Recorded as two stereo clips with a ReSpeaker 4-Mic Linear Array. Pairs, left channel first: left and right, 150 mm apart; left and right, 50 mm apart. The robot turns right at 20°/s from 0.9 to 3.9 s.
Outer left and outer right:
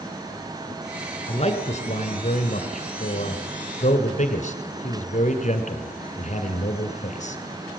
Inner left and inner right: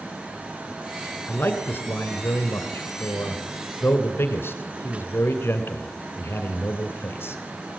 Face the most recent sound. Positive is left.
turn(degrees=55)  # may be behind; listen again after turning